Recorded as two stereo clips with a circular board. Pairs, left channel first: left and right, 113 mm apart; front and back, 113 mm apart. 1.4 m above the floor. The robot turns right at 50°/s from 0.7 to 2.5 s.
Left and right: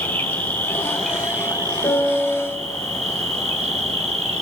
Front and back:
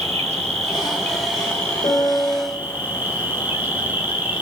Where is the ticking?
No ticking in this recording.